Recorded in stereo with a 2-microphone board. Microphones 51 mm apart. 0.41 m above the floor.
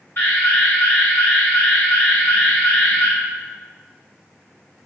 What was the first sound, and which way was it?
An alarm, 55° left (ahead or behind).